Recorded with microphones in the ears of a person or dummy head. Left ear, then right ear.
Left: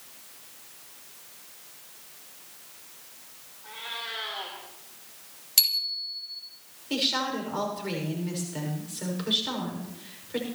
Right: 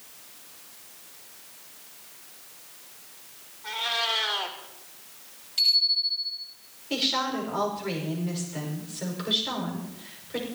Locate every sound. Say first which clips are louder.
3.6 s a cat meowing: right 9 dB; 80° right, 2.5 m
5.6 s a bicycle bell: right 4 dB; 70° left (ahead or behind), 4 m
6.9 s a woman speaking: right 1 dB; centre (ahead or behind), 5.5 m